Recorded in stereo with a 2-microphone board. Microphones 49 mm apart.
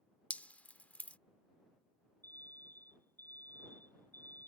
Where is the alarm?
45° left (ahead or behind).